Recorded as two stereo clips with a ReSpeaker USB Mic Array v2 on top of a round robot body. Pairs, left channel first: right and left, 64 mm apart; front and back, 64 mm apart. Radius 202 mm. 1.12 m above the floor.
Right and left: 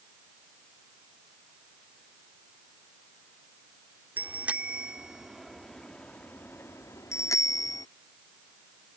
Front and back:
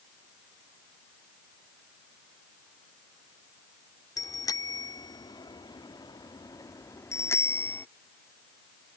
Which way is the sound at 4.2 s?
25° left.